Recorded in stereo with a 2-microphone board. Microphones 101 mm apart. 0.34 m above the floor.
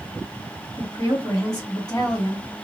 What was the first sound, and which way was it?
A woman speaking, 40° left (ahead or behind).